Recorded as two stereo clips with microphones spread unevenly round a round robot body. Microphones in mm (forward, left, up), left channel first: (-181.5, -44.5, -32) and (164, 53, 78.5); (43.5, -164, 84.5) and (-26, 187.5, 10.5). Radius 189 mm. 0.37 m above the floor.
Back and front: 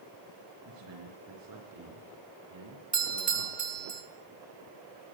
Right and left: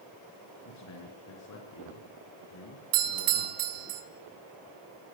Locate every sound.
0.7 s a man speaking: 35° right, 6 m
2.9 s a doorbell: 90° left, 3.5 m